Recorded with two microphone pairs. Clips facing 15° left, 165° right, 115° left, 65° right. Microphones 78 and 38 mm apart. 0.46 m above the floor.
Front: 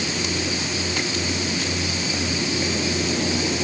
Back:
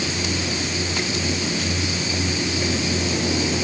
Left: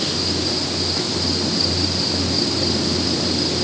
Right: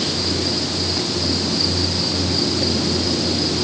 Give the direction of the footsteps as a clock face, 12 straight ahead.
I don't hear footsteps.